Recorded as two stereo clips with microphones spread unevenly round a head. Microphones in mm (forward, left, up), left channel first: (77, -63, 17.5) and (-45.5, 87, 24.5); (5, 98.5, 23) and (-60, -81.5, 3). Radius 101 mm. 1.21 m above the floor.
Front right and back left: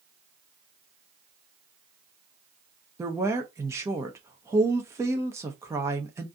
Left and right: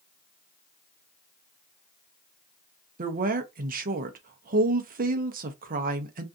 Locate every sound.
3.0 s a woman speaking: 155° right, 0.7 m